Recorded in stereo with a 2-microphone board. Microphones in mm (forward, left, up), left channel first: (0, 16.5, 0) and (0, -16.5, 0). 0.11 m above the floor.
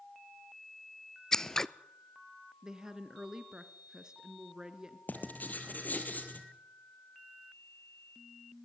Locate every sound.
1.3 s scissors: 20° left (ahead or behind), 0.5 m
2.6 s a woman speaking: 20° right (ahead or behind), 1.6 m
5.1 s writing: 65° left (ahead or behind), 3 m